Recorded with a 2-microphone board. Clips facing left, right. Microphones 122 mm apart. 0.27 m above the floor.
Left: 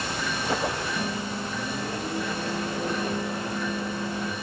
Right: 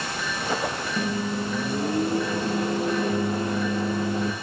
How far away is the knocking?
No knocking in this recording.